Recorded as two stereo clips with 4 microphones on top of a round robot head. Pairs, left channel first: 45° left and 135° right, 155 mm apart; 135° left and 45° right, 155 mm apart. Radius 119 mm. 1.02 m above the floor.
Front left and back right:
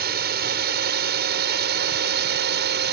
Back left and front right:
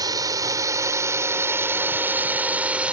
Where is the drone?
115° right; by 2.9 s 130° right.